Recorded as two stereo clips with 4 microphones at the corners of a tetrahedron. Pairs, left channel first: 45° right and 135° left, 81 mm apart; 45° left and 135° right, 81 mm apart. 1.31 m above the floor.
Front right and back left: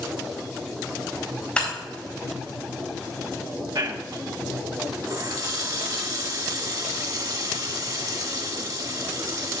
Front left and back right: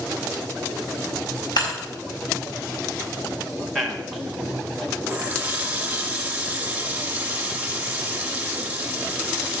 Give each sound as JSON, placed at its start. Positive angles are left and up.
{"t": 1.6, "sound": "breaking glass", "azimuth_deg": 30, "distance_m": 4.0}
{"t": 3.8, "sound": "a man speaking", "azimuth_deg": 135, "distance_m": 1.8}
{"t": 5.1, "sound": "a running tap", "azimuth_deg": 155, "distance_m": 1.5}